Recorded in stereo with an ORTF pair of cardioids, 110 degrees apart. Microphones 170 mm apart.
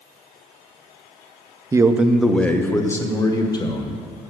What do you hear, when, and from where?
1.7 s a man speaking: 20° right, 0.6 m; by 4.0 s 25° left, 1.8 m